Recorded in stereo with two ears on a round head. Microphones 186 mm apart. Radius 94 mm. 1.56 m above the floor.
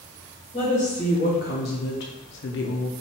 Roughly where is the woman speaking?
Left.